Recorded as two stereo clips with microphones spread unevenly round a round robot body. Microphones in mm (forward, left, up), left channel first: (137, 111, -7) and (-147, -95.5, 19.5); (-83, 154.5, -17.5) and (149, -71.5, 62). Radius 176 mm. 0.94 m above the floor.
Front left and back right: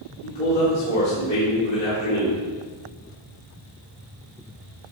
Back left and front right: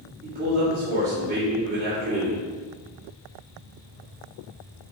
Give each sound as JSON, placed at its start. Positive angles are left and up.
{"t": 0.2, "sound": "a man speaking", "azimuth_deg": 20, "distance_m": 3.0}